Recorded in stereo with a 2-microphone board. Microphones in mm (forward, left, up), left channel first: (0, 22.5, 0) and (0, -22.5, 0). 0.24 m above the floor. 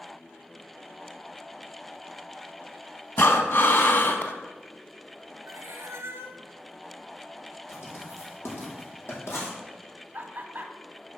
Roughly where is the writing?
Left.